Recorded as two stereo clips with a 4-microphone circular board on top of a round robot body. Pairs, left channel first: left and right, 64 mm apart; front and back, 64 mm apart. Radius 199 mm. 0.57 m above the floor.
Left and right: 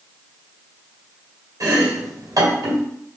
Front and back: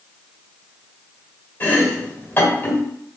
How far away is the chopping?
About 2.5 m.